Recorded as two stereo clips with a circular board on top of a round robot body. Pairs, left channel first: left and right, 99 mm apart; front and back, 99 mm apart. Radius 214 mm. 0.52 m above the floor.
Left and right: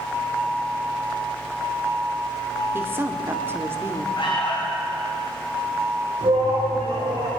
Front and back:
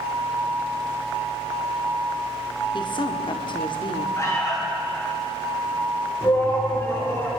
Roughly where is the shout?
Ahead right.